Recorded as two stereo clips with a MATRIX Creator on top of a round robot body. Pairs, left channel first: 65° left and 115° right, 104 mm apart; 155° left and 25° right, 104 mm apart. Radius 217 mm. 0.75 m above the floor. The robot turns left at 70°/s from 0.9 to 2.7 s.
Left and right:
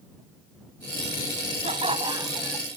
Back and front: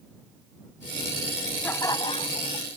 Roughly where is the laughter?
Behind right.